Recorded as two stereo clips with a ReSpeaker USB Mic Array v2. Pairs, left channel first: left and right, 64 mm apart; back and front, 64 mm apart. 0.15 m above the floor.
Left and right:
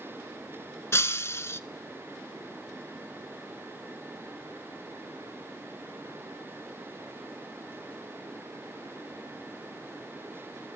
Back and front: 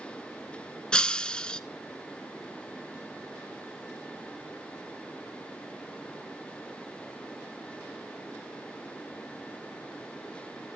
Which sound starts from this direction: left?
Breaking glass, at 0.9 s.